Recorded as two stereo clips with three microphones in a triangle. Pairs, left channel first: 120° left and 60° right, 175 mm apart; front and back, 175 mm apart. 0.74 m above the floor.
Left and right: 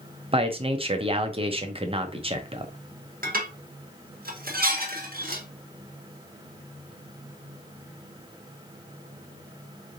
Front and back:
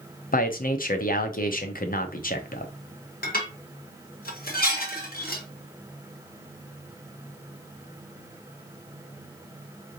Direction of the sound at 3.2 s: 30° right.